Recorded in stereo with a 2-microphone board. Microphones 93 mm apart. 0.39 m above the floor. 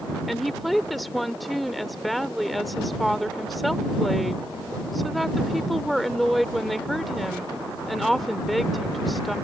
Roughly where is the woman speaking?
Centre.